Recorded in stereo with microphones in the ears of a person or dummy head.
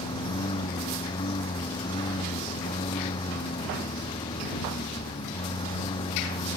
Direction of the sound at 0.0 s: 25° left (ahead or behind).